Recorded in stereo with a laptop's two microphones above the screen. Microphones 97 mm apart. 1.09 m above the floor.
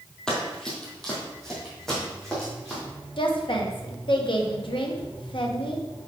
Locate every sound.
0.3 s running footsteps: 5° left (ahead or behind), 1.3 m
3.2 s a woman speaking: 60° left (ahead or behind), 1.1 m